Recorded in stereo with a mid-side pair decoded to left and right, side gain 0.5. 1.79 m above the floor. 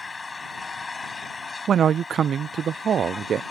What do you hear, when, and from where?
0.0 s an engine running: 25° left
1.7 s a man speaking: 50° right